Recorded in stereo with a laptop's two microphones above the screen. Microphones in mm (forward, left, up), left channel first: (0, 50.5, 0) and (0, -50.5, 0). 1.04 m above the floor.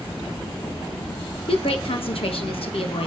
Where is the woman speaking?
65° left (ahead or behind), 1.2 m.